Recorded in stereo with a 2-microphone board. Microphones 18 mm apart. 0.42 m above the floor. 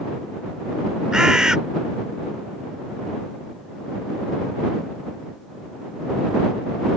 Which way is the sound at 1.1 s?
35° right (ahead or behind).